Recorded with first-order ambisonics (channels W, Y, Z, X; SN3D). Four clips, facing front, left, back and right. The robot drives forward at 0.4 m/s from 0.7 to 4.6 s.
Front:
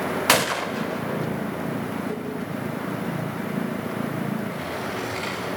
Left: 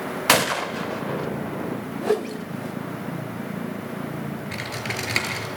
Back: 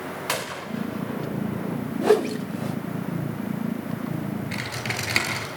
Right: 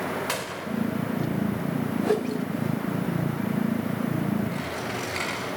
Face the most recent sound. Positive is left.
turn(degrees=140)